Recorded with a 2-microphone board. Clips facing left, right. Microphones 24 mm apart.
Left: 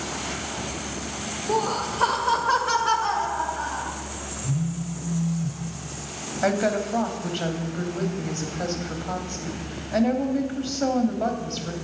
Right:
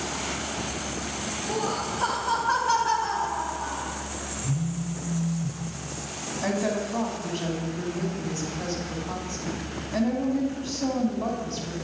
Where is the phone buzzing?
5° right (ahead or behind), 3.5 m.